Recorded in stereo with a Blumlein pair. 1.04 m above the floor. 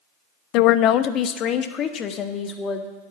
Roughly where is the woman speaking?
Ahead left.